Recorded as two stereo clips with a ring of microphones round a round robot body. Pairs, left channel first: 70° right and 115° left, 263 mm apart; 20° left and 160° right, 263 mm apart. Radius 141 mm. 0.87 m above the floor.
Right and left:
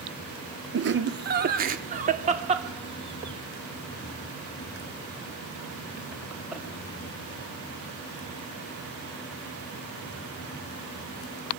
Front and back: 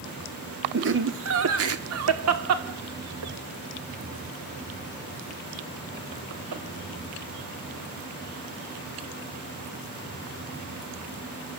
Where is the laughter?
155° left, 2.5 m; by 6.6 s 160° right, 5 m.